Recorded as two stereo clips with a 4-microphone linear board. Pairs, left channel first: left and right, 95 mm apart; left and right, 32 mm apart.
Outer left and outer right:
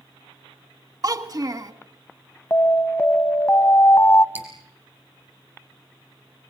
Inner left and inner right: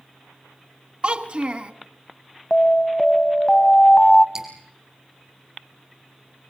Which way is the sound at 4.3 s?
20° right (ahead or behind).